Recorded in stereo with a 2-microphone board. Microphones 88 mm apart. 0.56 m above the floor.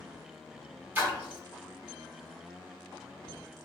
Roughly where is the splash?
Right.